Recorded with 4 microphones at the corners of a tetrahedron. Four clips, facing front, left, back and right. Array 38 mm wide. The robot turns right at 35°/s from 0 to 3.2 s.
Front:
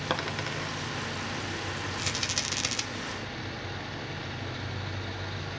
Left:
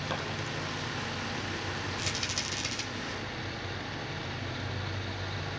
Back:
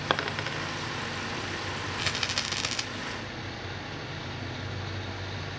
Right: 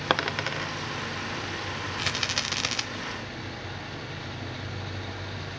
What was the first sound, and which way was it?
A dropped coin, 110° right.